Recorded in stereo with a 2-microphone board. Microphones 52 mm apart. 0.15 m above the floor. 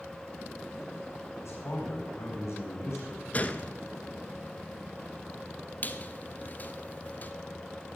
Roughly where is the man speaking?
Left.